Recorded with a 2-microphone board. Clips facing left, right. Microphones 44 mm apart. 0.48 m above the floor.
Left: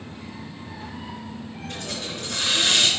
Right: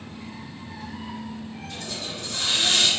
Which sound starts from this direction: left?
A hiss, at 1.7 s.